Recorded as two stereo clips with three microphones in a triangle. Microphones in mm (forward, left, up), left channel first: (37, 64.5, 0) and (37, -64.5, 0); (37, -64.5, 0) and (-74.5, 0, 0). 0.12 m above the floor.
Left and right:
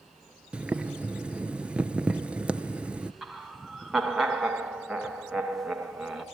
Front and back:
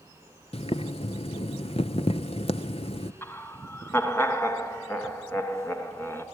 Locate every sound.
0.5 s boiling: 10° right, 0.7 m
3.2 s laughter: 5° right, 1.4 m